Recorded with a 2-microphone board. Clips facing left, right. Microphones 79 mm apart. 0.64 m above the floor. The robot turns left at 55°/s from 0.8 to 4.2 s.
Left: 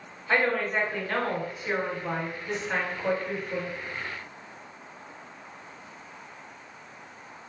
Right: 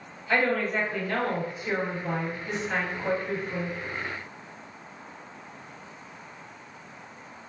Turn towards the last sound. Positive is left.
turn(degrees=-70)